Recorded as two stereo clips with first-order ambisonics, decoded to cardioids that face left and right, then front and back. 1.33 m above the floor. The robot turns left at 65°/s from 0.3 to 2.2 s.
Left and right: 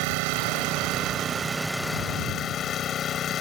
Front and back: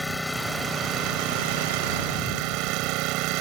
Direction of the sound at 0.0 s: 90° right.